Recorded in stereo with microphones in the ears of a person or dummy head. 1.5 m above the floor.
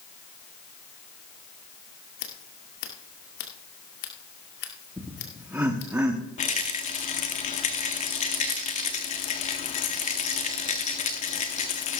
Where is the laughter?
10° right (ahead or behind), 0.9 m.